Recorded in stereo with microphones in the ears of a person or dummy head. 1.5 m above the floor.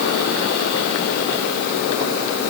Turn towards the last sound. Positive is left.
No sound to turn to.